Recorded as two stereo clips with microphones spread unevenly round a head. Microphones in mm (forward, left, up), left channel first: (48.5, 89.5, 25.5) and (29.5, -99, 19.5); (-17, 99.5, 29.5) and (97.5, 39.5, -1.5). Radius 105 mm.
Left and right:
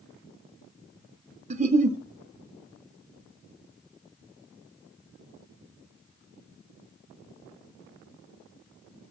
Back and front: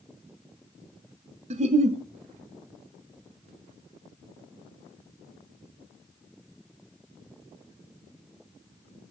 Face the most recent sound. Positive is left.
turn(degrees=-45)